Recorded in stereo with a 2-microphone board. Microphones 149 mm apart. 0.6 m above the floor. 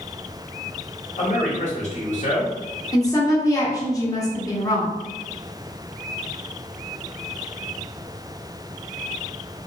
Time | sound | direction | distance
1.2 | a man speaking | 55° left (ahead or behind) | 1.4 m
2.9 | a woman speaking | 25° left (ahead or behind) | 0.9 m